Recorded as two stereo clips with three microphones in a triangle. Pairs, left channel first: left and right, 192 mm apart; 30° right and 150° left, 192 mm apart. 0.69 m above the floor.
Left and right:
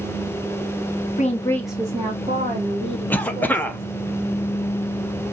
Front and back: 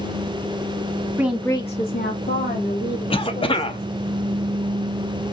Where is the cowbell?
I don't hear a cowbell.